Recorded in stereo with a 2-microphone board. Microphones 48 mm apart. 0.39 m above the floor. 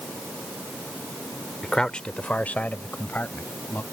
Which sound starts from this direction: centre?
A man speaking, at 1.6 s.